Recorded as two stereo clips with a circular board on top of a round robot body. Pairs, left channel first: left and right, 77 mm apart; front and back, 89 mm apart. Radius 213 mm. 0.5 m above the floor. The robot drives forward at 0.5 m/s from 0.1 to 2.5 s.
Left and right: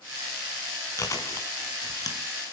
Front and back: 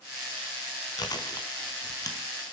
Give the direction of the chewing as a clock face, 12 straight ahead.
11 o'clock.